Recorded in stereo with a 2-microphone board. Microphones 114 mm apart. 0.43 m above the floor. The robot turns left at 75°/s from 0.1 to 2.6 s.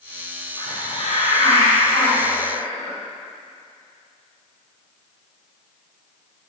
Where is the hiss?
155° left, 3 m; by 3.0 s straight ahead, 3 m.